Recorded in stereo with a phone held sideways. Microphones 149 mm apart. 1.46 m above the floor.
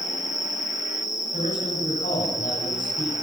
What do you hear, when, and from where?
0.0 s an insect: 55° left (ahead or behind), 7 m
1.3 s a man speaking: 65° left (ahead or behind), 10 m